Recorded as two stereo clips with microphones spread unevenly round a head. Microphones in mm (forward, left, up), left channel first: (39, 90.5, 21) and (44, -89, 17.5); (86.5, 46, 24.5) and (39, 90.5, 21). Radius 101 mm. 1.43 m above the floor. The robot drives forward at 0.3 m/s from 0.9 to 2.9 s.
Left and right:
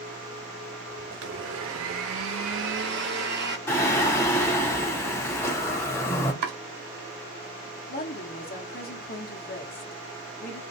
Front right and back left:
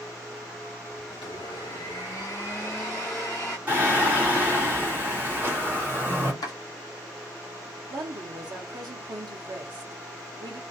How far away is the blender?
About 0.5 m.